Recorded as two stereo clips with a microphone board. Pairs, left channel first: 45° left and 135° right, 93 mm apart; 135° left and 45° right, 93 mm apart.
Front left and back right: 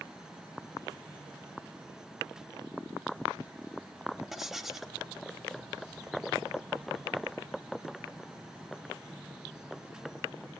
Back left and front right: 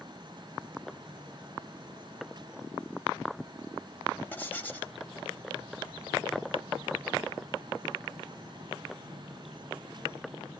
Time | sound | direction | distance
4.3 | writing | 145° left | 1.1 m